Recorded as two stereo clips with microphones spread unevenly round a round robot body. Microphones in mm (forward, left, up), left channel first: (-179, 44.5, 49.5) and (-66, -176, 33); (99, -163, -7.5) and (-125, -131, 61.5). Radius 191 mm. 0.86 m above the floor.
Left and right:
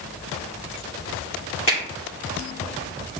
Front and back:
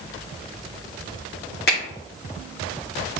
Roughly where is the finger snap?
Ahead left.